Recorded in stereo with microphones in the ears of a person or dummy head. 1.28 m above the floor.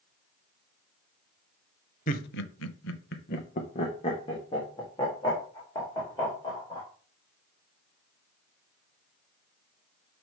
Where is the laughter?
45° left (ahead or behind), 0.8 m; by 6.9 s 10° left (ahead or behind), 4 m.